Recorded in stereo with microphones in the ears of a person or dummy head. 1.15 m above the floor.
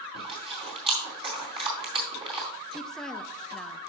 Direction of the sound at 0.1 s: 30° right (ahead or behind).